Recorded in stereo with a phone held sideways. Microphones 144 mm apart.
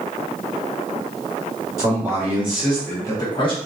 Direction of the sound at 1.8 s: 25° right (ahead or behind).